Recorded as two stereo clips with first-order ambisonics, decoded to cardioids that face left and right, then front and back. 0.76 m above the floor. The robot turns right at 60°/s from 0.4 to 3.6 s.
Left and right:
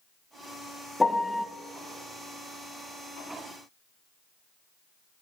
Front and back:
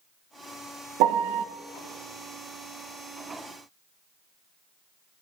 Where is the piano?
170° left, 0.6 m; by 1.4 s 165° right, 0.6 m.